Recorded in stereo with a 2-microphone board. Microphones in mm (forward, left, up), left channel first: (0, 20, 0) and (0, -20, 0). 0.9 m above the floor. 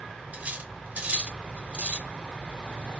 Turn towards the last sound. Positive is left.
turn(degrees=-40)  # may be behind; listen again after turning